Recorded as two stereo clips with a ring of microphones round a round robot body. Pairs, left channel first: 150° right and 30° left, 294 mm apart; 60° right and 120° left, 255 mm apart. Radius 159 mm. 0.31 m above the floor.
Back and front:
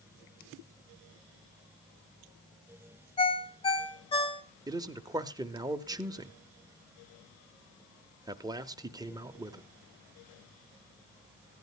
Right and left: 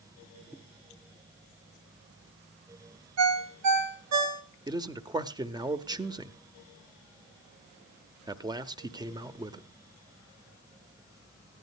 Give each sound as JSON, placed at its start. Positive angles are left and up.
{"t": 3.2, "sound": "a ringtone", "azimuth_deg": 140, "distance_m": 1.4}
{"t": 4.7, "sound": "a man speaking", "azimuth_deg": 80, "distance_m": 0.9}